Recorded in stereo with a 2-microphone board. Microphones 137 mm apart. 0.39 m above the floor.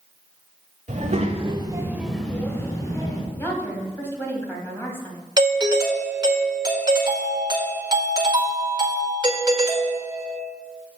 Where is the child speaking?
60° right (ahead or behind), 1.5 m; by 3.2 s 30° left (ahead or behind), 2.5 m.